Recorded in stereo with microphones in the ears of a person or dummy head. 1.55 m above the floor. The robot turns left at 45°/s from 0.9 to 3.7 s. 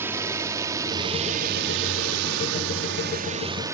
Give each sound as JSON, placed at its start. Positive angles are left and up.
{"t": 0.0, "sound": "a drone", "side_deg": -15}